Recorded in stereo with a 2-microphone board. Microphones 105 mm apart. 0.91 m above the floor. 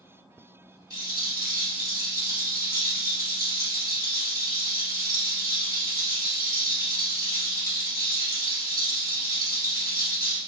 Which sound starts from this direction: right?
A rattle, at 0.9 s.